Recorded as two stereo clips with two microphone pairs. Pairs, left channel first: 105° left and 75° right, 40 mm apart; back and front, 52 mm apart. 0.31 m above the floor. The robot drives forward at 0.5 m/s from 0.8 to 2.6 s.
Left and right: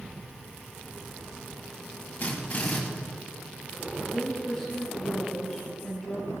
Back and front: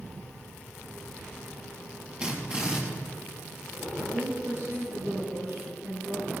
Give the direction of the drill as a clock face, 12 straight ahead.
10 o'clock.